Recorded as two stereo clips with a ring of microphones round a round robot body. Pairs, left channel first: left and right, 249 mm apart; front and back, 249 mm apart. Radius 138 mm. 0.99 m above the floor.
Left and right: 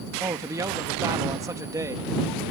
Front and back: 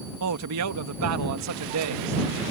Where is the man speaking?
170° right.